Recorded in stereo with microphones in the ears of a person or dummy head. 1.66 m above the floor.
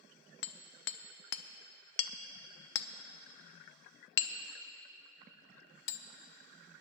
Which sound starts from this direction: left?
Hammering, at 0.4 s.